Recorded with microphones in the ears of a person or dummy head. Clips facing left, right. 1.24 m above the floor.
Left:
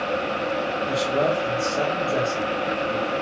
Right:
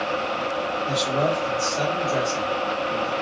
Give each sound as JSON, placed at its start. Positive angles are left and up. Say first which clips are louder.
{"t": 0.9, "sound": "a man speaking", "louder": "left 1 dB", "side_deg": 15, "distance_m": 1.1}